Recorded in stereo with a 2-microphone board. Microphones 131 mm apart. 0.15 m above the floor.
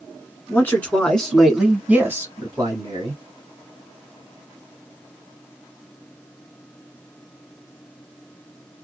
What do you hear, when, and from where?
0.5 s a man speaking: 20° left (ahead or behind), 1.4 m; by 3.2 s 40° right (ahead or behind), 1.4 m